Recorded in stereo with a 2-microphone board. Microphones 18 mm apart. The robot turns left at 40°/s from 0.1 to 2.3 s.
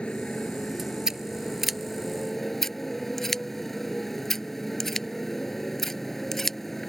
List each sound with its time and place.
0.0 s a motorcycle: 90° left; by 6.9 s straight ahead
1.1 s scissors: 25° right (ahead or behind); by 6.9 s 25° left (ahead or behind)